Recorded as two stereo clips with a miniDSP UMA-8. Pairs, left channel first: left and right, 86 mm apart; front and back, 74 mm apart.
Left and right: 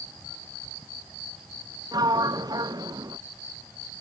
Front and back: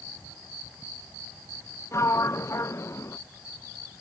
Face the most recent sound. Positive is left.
turn(degrees=-50)